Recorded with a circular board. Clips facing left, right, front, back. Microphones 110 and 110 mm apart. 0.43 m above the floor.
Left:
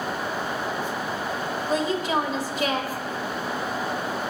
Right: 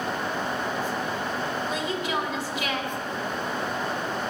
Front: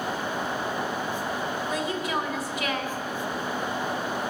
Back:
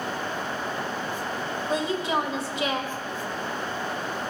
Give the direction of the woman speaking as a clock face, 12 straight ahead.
8 o'clock.